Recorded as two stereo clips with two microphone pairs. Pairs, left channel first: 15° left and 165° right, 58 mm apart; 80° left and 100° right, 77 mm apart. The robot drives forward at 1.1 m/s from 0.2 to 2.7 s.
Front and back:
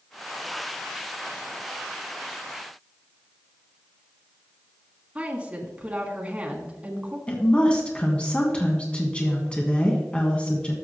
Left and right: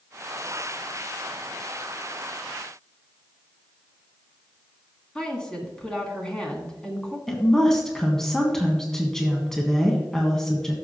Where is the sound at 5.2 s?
145° left, 1.7 m.